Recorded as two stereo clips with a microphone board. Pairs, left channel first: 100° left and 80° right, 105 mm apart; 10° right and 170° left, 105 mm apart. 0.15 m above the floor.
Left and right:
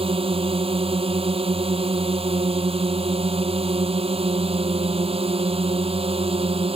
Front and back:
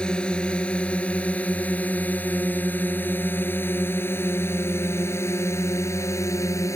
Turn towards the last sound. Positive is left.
turn(degrees=-70)